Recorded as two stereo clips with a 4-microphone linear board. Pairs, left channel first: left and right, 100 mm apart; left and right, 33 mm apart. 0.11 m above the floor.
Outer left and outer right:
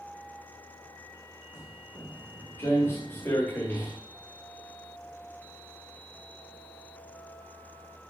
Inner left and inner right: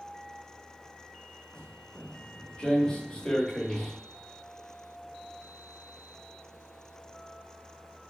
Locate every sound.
1.5 s footsteps: 30° left (ahead or behind), 6 m; by 4.0 s 20° left (ahead or behind), 6.5 m